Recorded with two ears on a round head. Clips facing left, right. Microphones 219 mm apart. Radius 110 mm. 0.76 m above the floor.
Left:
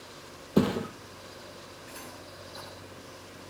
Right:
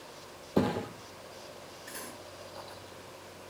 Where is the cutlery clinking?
40° right (ahead or behind), 7 m.